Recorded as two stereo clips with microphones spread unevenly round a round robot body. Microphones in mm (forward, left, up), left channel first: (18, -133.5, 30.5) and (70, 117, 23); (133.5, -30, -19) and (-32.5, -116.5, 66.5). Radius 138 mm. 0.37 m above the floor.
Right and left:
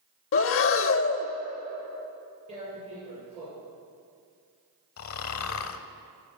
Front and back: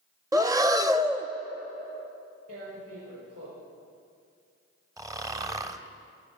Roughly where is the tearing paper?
Behind left.